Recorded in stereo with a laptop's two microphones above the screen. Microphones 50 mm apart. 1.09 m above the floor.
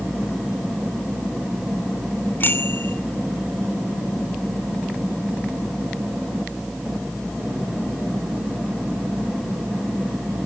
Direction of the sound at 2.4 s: 45° left (ahead or behind).